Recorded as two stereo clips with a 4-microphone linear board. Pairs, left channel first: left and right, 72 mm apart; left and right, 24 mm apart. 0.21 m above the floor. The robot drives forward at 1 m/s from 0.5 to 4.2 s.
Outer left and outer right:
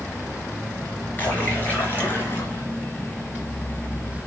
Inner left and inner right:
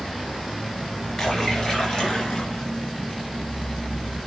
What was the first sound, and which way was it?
A splash, 25° left (ahead or behind).